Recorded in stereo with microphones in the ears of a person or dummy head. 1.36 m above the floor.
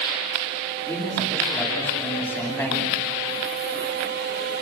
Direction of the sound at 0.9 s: 10° left (ahead or behind).